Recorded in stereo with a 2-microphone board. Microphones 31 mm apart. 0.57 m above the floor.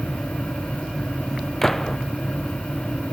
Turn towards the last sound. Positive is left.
turn(degrees=15)  # may be behind; listen again after turning